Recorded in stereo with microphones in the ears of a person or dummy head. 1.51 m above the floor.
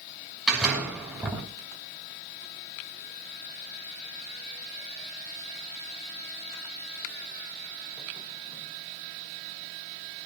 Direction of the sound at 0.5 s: 5° right (ahead or behind).